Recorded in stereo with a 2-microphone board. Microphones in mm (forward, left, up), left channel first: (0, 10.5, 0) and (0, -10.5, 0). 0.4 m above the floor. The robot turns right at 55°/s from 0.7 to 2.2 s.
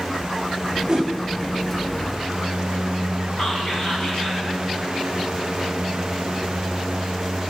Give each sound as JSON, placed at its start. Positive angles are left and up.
{"t": 0.9, "sound": "a whoosh", "side_deg": -35, "distance_m": 1.8}
{"t": 3.4, "sound": "whispering", "side_deg": 40, "distance_m": 4.0}